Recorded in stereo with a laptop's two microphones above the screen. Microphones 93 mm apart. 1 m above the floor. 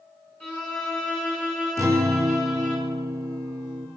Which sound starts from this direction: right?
A guitar, at 1.8 s.